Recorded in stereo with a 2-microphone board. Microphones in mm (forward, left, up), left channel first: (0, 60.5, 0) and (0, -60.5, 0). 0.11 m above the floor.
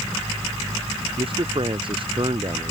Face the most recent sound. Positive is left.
turn(degrees=-40)  # may be behind; listen again after turning